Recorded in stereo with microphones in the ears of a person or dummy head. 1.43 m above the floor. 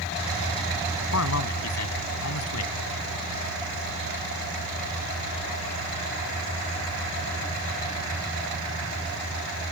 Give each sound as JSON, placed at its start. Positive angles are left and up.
{"t": 1.1, "sound": "a man speaking", "side_deg": 75}